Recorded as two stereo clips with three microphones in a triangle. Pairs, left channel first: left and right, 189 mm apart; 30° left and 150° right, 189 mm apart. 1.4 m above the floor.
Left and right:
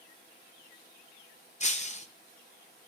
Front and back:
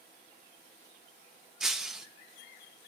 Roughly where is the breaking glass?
Behind left.